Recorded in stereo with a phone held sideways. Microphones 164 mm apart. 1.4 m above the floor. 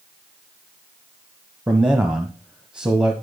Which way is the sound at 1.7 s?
5° right (ahead or behind).